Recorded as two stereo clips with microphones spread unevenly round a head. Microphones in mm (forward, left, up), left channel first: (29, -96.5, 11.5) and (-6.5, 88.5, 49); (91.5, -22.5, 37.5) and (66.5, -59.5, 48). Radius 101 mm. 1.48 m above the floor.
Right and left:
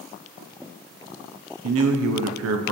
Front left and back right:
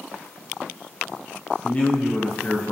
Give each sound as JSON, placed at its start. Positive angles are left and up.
{"t": 1.6, "sound": "a man speaking", "azimuth_deg": 120, "distance_m": 0.8}